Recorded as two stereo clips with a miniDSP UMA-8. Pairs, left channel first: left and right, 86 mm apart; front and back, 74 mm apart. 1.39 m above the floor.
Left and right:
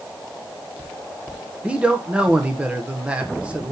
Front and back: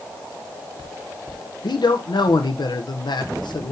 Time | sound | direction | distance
1.6 | a man speaking | 15° right | 1.1 m